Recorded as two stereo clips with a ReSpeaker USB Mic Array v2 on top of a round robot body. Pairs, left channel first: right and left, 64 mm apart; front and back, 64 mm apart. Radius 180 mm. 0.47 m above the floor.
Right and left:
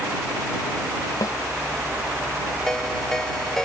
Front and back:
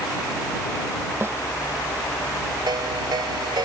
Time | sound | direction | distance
1.2 | a snare drum | 125° right | ?
2.7 | a ringtone | 175° right | ?